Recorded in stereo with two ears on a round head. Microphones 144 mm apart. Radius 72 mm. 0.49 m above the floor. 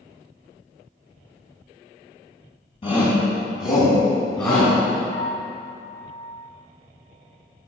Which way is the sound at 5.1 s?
20° left (ahead or behind).